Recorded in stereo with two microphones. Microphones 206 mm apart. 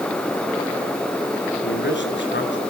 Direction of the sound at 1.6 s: 60° left (ahead or behind).